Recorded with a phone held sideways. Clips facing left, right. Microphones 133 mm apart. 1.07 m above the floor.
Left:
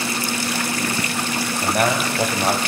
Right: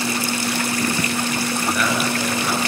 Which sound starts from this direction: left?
A man speaking, at 1.6 s.